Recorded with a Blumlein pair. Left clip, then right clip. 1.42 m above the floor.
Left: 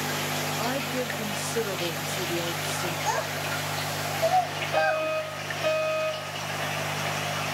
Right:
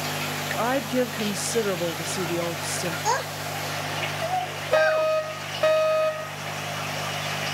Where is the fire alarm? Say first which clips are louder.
Right 5 dB; 55° right, 3 m.